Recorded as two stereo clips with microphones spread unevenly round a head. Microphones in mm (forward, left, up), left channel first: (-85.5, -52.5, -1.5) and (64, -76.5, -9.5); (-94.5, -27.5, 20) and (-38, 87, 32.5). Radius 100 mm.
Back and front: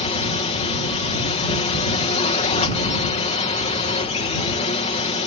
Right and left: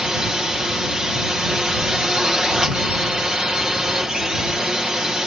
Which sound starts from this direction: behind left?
A drone, at 0.0 s.